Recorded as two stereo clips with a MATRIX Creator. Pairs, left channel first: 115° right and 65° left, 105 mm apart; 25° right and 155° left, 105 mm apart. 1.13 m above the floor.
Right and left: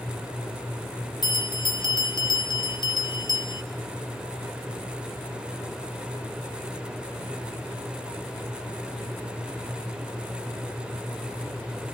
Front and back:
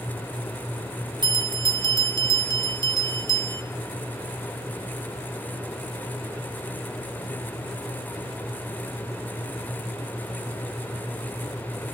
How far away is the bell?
About 2.5 m.